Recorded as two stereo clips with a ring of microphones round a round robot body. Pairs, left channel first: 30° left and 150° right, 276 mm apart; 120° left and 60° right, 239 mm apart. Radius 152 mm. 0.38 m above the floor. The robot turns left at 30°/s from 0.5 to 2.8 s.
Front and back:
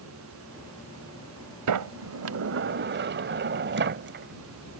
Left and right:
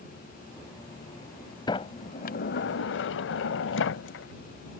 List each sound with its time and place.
1.7 s a sliding door: 165° right; by 4.8 s 160° left